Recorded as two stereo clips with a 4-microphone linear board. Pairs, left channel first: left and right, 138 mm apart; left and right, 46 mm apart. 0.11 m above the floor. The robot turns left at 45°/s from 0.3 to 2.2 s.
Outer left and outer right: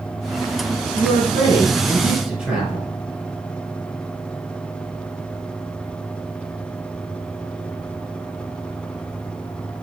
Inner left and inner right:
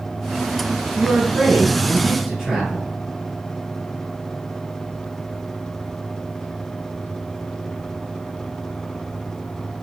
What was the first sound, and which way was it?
A man speaking, 110° right.